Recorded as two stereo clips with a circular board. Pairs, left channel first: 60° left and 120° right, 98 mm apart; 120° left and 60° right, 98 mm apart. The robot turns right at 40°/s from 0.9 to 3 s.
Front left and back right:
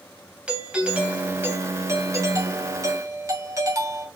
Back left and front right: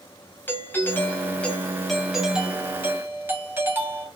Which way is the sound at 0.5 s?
170° left.